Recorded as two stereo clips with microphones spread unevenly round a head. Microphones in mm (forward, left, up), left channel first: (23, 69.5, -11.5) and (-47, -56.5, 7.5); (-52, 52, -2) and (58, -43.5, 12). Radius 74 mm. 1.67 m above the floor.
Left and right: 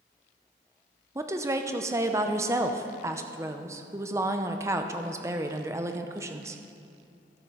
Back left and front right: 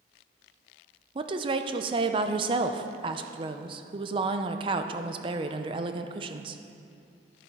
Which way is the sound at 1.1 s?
65° right.